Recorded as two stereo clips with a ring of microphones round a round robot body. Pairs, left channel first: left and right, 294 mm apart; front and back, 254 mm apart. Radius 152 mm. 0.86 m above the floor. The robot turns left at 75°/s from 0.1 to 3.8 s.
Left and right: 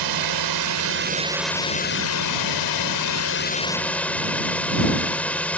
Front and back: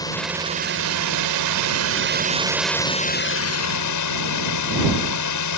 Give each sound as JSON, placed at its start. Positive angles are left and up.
{"t": 0.0, "sound": "a drone", "azimuth_deg": -80}